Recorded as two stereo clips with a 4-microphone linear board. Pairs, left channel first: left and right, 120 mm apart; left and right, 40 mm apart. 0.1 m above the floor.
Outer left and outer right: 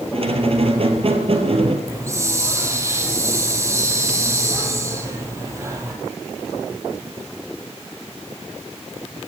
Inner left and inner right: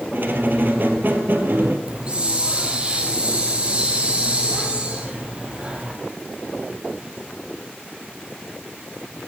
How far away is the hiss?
About 2.5 m.